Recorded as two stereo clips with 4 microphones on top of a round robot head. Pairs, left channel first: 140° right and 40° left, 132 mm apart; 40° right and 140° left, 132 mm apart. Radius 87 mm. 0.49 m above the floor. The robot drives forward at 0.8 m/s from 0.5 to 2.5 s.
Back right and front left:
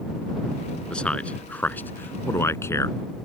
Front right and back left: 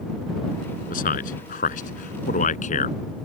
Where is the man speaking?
60° right; by 3.0 s 70° right.